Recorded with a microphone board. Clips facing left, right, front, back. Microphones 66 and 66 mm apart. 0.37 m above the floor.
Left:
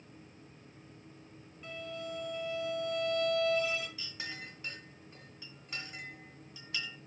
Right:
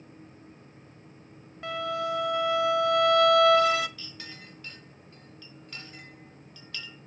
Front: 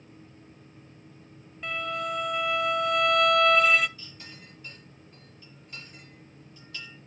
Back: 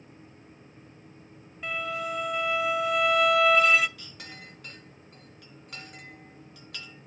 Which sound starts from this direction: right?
A violin, at 1.6 s.